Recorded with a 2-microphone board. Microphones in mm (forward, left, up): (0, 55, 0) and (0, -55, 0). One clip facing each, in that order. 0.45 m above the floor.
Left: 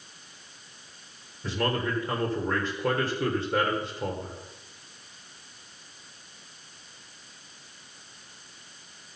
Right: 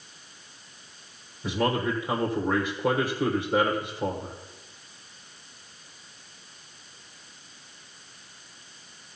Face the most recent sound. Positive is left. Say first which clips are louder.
# right 3 dB
turn(degrees=-10)  # may be behind; listen again after turning